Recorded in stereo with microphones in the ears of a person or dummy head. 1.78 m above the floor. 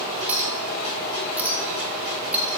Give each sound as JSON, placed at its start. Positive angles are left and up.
{"t": 0.3, "sound": "a clink", "side_deg": -5, "distance_m": 1.1}